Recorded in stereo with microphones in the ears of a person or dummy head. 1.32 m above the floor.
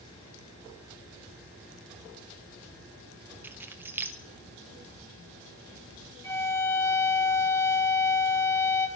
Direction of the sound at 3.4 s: 15° right (ahead or behind).